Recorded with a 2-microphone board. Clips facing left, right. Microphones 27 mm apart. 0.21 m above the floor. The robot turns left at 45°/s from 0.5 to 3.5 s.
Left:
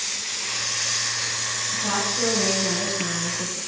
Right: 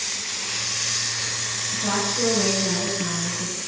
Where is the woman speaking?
160° right, 3 m; by 3.6 s 120° left, 3 m.